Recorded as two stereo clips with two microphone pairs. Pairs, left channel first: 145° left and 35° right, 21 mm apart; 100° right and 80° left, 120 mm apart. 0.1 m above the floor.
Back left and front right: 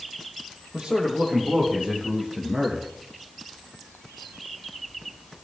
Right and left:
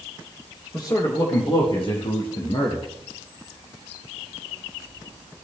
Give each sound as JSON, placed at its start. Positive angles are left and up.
{"t": 0.7, "sound": "a man speaking", "azimuth_deg": -45, "distance_m": 3.5}